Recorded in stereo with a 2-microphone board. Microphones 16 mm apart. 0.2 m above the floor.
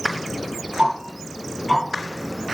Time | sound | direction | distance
0.8 | ticking | 70° right (ahead or behind) | 4.5 m